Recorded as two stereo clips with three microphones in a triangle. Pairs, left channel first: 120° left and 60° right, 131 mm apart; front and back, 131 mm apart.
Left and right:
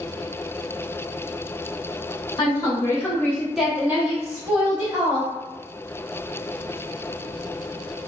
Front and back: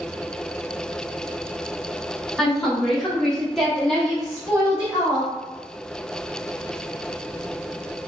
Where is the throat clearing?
I don't hear throat clearing.